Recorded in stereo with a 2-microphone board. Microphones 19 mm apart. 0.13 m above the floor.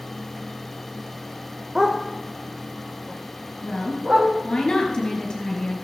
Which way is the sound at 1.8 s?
30° right (ahead or behind).